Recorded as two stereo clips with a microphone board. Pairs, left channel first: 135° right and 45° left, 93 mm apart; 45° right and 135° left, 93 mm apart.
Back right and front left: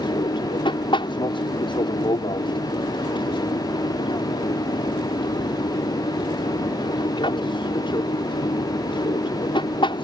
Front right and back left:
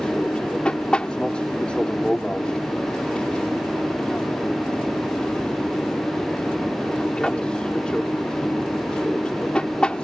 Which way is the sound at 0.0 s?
125° right.